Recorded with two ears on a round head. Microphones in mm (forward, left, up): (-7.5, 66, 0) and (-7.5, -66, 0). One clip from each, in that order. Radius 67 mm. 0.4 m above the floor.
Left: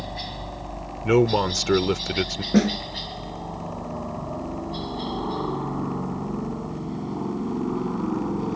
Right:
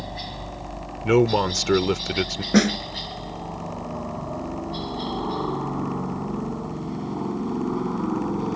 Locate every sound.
0.0 s a helicopter: 10° left (ahead or behind); by 8.6 s 15° right (ahead or behind)
1.0 s a man speaking: centre (ahead or behind)
2.5 s a snare drum: 40° right (ahead or behind)